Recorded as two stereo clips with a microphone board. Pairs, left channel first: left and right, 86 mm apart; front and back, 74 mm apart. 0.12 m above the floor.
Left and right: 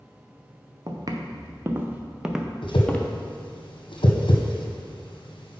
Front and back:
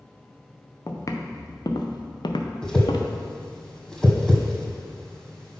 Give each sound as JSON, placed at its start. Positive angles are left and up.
{"t": 0.9, "sound": "footsteps", "azimuth_deg": -50, "distance_m": 1.3}
{"t": 2.6, "sound": "a whoosh", "azimuth_deg": 85, "distance_m": 1.5}